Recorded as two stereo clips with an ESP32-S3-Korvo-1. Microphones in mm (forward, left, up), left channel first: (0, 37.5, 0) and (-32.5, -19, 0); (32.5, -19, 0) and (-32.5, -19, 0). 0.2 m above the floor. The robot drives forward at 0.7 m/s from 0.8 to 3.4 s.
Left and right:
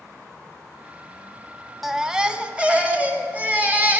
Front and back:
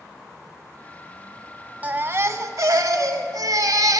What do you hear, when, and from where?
1.8 s a baby crying: 160° left, 0.6 m; by 4.0 s 175° left, 1.5 m